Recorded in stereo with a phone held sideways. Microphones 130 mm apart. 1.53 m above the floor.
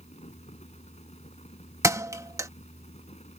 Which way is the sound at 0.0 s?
55° left (ahead or behind).